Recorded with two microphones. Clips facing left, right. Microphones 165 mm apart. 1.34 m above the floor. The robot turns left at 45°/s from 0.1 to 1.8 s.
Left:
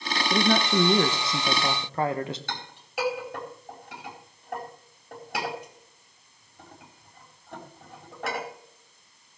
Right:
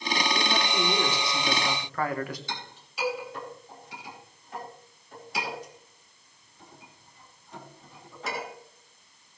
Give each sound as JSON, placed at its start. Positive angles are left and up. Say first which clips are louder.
{"t": 0.3, "sound": "a man speaking", "louder": "left 10 dB", "azimuth_deg": 90, "distance_m": 1.5}
{"t": 2.5, "sound": "a clink", "louder": "left 1 dB", "side_deg": 60, "distance_m": 4.5}